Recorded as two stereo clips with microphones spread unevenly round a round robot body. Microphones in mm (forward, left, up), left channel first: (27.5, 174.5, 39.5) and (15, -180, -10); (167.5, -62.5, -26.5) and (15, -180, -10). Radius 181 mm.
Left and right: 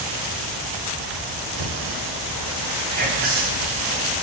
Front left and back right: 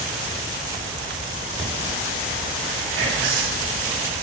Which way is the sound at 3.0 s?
150° right.